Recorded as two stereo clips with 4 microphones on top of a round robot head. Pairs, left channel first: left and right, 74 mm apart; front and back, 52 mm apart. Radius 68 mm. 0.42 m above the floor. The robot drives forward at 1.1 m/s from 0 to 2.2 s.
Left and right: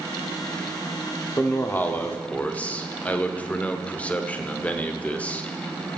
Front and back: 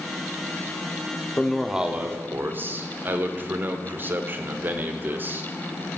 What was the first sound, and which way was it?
A man speaking, 50° left.